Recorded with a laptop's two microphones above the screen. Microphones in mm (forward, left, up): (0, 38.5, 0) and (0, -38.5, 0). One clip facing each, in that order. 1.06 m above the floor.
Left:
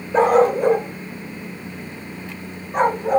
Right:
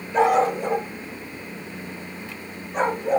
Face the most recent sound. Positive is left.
turn(degrees=55)  # may be behind; listen again after turning